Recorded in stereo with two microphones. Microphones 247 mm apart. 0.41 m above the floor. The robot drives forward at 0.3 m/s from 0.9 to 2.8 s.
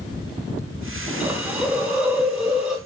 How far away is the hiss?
About 0.5 m.